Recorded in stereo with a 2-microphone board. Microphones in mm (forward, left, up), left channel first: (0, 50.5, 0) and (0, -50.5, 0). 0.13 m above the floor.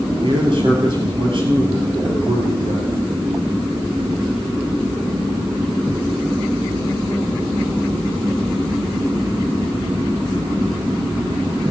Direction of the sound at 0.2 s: 55° right (ahead or behind).